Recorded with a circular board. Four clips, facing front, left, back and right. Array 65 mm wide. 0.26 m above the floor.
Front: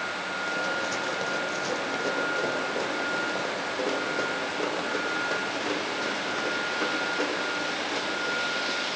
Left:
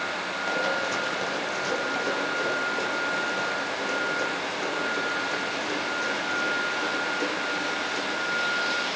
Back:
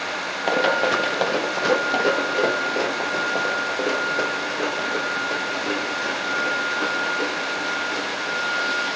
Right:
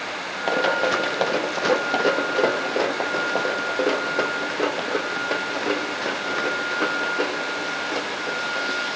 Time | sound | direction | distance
0.5 | running footsteps | 150° right | 2.0 m